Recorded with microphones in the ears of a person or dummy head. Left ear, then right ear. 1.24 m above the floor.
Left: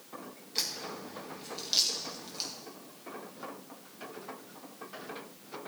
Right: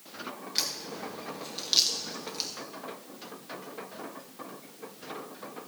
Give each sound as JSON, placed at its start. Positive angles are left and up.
{"t": 0.6, "sound": "a crack", "side_deg": -5, "distance_m": 1.0}